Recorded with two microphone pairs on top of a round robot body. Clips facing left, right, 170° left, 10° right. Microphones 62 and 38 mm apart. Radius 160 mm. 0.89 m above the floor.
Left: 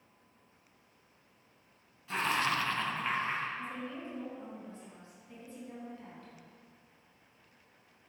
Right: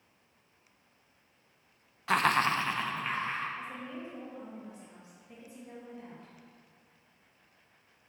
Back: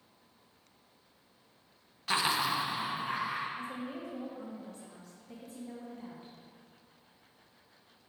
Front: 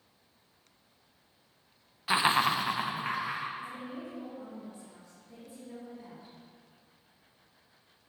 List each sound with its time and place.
2.1 s laughter: 90° right, 0.6 m; by 3.5 s 15° left, 1.4 m
3.6 s a woman speaking: 165° right, 1.4 m